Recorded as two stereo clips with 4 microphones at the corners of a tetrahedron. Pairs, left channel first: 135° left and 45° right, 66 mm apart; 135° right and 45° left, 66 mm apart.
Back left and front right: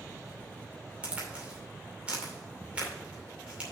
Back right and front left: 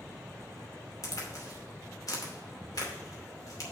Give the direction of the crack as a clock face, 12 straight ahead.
4 o'clock.